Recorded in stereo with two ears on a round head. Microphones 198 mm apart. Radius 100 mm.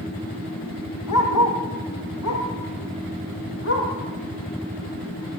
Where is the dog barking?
85° left, 5 m; by 3.9 s 60° left (ahead or behind), 7 m.